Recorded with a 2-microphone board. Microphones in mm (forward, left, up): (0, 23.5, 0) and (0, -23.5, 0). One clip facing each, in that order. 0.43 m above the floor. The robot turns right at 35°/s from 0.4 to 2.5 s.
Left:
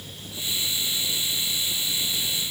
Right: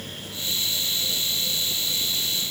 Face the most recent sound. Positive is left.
No sound to turn to.